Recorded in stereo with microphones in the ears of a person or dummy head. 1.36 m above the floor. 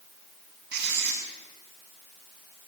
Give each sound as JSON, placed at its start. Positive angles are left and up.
{"t": 0.7, "sound": "writing", "side_deg": -65, "distance_m": 7.5}